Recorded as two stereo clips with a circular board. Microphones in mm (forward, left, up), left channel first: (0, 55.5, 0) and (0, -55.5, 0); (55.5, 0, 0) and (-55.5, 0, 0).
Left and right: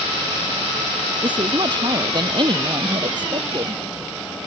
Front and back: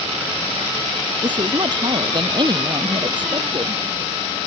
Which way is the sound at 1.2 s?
135° right.